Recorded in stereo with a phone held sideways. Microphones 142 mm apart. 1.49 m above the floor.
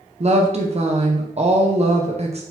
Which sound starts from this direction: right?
A woman speaking, at 0.2 s.